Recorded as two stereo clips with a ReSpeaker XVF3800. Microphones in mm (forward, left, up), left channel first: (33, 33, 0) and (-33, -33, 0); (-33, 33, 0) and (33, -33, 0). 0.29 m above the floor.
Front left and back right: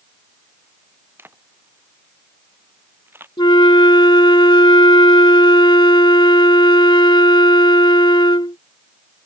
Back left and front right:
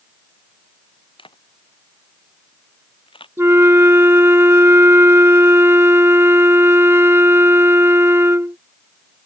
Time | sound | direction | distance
1.2 | a camera shutter | 160° left | ?
3.4 | a flute | 15° left | ?